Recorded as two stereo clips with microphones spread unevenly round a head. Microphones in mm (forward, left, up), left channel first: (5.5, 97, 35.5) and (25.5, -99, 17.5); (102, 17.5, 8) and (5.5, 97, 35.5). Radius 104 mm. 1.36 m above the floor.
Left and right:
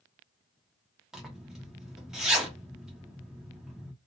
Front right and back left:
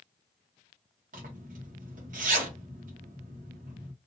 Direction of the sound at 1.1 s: 170° right.